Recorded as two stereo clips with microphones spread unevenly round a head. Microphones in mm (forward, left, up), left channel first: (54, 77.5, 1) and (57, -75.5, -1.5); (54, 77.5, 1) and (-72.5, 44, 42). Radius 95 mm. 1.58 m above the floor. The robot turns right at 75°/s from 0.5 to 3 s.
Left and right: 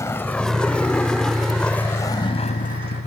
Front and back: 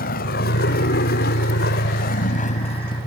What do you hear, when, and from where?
0.0 s a vehicle: 20° left; by 3.1 s 75° left